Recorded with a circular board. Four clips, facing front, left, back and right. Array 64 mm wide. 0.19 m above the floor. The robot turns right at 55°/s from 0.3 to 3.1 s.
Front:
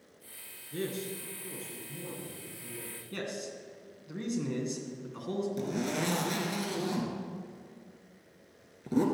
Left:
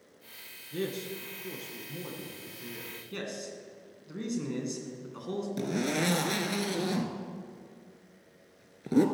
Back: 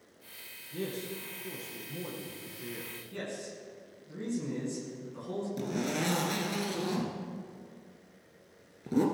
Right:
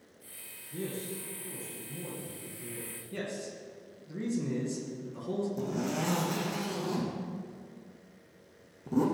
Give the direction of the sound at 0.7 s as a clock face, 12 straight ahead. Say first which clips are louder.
Left 3 dB, front 1 dB; 11 o'clock.